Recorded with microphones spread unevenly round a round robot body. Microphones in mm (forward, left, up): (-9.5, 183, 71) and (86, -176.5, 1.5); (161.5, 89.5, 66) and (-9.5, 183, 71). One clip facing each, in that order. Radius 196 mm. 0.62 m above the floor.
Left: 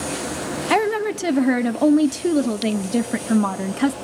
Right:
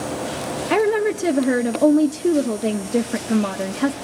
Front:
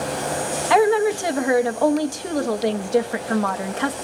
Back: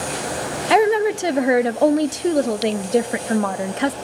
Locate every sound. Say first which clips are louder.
0.7 s a woman speaking: right 3 dB, back 1 dB; 165° left, 0.8 m